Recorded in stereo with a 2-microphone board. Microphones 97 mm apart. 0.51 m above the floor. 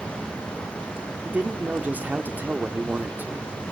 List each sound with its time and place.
1.2 s a man speaking: 15° right (ahead or behind), 1.4 m